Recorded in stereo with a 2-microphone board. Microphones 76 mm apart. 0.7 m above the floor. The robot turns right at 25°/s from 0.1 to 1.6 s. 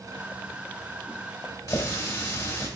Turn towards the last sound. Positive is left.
turn(degrees=50)  # may be behind; listen again after turning